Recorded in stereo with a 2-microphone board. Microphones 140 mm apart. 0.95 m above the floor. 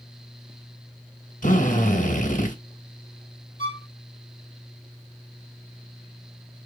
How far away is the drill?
About 3 m.